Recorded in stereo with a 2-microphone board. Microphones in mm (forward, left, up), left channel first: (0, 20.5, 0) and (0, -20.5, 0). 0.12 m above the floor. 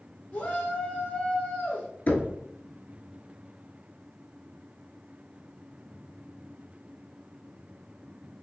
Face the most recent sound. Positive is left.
turn(degrees=50)  # may be behind; listen again after turning